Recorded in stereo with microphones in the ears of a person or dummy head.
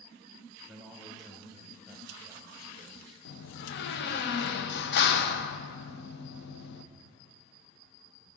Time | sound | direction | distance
0.7 | a man speaking | centre (ahead or behind) | 1.6 m
3.2 | a door slam | 60° left (ahead or behind) | 0.6 m